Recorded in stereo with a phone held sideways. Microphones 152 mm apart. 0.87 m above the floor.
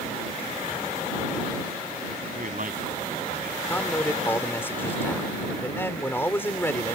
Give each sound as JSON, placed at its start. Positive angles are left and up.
{"t": 2.4, "sound": "a man speaking", "side_deg": -60}
{"t": 3.7, "sound": "a man speaking", "side_deg": 15}